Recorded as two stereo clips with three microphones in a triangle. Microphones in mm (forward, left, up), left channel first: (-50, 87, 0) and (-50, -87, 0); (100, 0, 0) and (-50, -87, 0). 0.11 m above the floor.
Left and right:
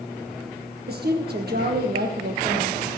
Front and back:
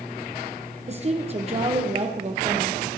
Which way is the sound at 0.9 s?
100° right.